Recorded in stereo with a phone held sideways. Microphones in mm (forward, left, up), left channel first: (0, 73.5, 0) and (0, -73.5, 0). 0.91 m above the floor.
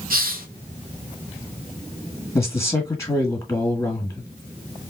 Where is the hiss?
75° right (ahead or behind), 0.8 m.